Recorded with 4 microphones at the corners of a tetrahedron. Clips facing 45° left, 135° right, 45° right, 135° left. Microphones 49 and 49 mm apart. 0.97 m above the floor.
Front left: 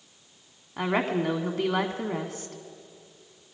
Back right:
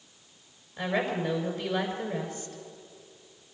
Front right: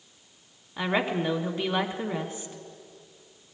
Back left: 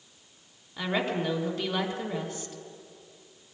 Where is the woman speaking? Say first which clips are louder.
Front left 3 dB, front right 2 dB; 25° left, 1.7 m.